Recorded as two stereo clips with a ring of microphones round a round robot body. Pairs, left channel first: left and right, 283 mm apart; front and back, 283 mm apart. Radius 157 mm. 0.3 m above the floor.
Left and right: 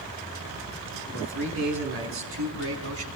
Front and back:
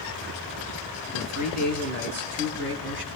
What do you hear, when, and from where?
1.1 s a man speaking: 140° right, 4.5 m; by 3.1 s 130° right, 4 m